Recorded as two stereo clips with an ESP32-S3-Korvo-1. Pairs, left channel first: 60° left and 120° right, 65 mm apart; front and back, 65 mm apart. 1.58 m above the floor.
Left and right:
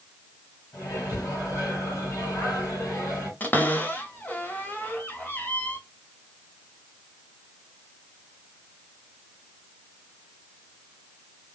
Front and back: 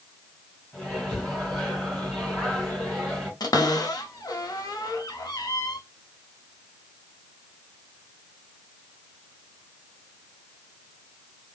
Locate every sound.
0.7 s a microwave: 90° left, 2.5 m
3.4 s a cupboard door: straight ahead, 0.6 m